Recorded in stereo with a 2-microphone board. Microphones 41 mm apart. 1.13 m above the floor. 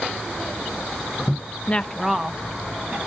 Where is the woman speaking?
40° left (ahead or behind), 0.5 m; by 3.0 s 25° right (ahead or behind), 2 m.